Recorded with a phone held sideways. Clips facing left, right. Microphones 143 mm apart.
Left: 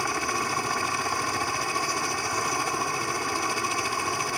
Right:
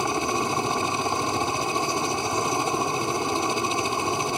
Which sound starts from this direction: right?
A helicopter, at 0.0 s.